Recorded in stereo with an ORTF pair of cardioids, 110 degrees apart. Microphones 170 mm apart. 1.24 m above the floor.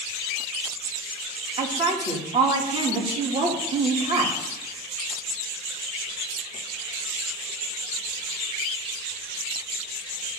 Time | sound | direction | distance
1.6 | a woman speaking | 35° right | 2.5 m